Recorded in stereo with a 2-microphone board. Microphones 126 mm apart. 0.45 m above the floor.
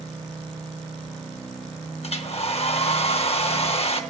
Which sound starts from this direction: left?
A hair dryer, at 2.0 s.